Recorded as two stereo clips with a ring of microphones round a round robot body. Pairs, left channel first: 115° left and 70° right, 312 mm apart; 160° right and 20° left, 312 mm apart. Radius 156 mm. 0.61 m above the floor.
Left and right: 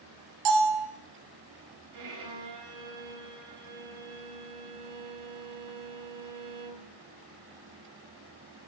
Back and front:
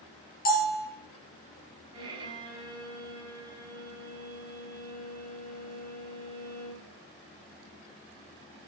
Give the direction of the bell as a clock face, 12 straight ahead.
3 o'clock.